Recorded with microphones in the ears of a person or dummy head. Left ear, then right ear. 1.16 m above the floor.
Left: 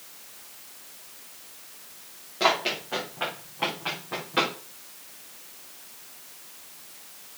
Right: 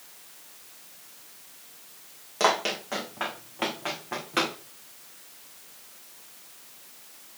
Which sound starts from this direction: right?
Running footsteps, at 2.4 s.